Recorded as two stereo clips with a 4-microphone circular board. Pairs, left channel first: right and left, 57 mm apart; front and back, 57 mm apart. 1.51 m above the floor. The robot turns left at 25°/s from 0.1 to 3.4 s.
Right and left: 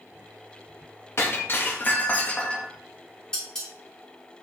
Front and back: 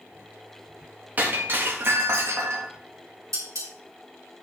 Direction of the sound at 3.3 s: 170° right.